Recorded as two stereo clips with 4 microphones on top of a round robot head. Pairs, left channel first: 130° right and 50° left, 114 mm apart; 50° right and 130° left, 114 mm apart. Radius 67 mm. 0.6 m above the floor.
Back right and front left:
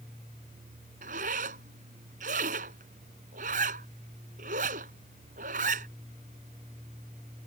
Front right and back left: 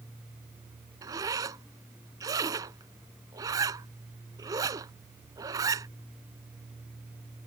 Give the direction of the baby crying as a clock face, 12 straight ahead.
I don't hear a baby crying.